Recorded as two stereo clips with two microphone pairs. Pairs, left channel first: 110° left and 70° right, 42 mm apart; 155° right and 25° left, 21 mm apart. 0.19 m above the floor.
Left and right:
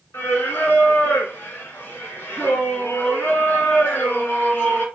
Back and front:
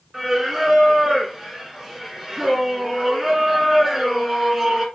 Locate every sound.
0.1 s singing: 105° left, 2 m